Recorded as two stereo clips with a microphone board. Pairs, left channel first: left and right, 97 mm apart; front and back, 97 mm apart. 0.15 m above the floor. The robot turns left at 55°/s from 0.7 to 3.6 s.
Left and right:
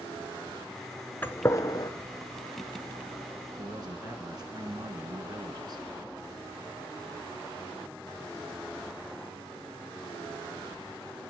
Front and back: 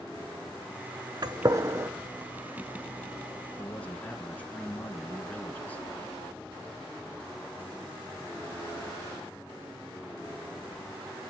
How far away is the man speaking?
About 1.8 m.